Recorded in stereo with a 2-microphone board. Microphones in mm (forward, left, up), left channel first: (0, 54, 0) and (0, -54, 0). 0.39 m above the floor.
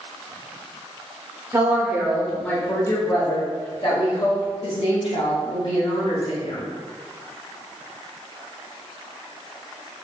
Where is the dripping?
I don't hear dripping.